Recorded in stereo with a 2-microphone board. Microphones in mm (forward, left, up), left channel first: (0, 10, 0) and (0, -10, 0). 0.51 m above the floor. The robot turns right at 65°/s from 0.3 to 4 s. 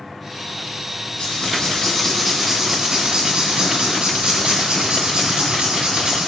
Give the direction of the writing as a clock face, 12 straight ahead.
8 o'clock.